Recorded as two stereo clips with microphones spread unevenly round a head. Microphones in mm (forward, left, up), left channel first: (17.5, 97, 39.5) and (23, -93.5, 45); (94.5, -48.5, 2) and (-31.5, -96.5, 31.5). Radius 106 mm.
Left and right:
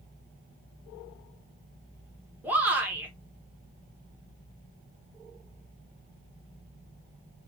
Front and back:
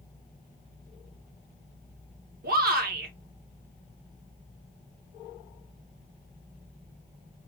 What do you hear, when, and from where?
2.4 s a shout: 170° right, 1.6 m